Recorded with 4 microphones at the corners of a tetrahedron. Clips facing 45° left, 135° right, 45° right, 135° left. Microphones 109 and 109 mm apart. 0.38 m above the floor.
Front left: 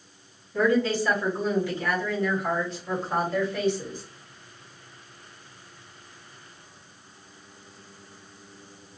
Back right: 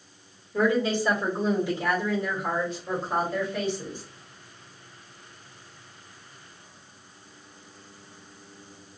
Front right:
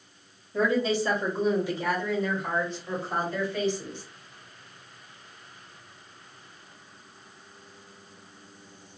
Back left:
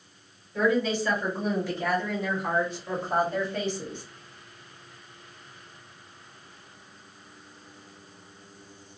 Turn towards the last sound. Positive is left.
turn(degrees=150)